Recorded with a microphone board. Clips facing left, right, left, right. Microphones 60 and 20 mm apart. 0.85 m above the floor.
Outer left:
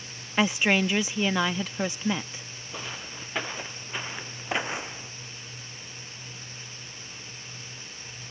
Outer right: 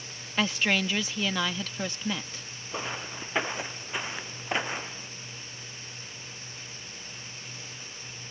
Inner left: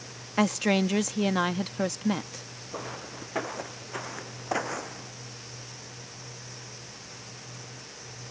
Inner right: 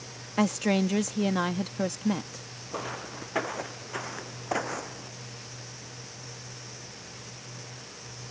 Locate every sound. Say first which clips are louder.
0.4 s a woman speaking: outer left 3 dB, inner left 1 dB; 15° left (ahead or behind)
2.7 s footsteps: outer right 4 dB, inner right 2 dB; 15° right (ahead or behind); by 5.1 s 10° left (ahead or behind)